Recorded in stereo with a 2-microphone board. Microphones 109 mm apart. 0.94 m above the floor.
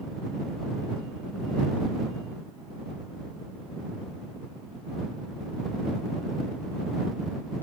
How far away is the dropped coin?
I don't hear a dropped coin.